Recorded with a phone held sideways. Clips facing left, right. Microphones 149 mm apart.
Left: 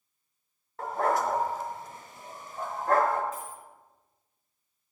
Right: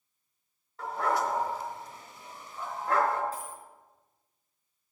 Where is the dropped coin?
35° right (ahead or behind), 3.5 m.